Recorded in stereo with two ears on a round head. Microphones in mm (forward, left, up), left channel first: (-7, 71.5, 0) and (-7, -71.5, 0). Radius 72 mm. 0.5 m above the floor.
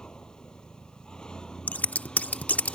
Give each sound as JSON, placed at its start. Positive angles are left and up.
{"t": 0.0, "sound": "a vehicle", "side_deg": 5}
{"t": 1.7, "sound": "scissors", "side_deg": 10}